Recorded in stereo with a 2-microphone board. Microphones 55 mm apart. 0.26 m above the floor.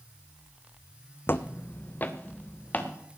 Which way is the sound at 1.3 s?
45° left (ahead or behind).